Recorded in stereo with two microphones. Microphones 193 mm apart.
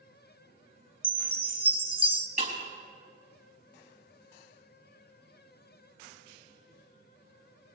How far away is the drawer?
No drawer in this recording.